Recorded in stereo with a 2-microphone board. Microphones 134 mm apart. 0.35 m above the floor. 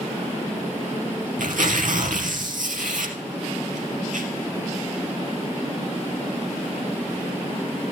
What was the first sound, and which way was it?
Tearing paper, 80° right.